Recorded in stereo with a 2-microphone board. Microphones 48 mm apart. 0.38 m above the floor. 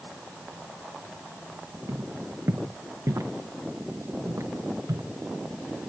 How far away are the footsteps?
About 2.5 m.